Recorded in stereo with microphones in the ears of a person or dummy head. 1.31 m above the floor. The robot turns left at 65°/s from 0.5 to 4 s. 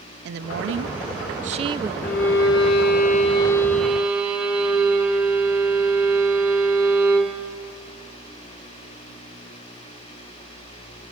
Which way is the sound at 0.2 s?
75° right.